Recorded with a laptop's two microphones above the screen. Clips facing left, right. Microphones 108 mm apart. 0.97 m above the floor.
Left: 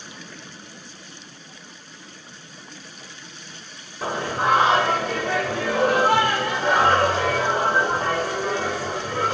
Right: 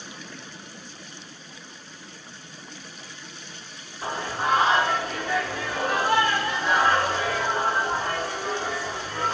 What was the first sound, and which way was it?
Singing, 90° left.